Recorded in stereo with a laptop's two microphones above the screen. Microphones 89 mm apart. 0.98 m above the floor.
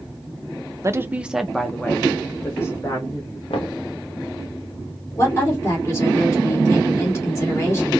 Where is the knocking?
70° left (ahead or behind), 1.1 m.